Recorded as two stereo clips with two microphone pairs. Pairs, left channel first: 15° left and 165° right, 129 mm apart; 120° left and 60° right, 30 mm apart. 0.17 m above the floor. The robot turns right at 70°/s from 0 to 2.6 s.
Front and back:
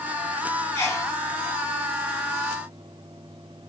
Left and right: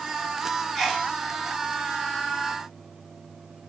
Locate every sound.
0.8 s a sneeze: 20° left, 1.5 m; by 1.1 s 45° left, 1.5 m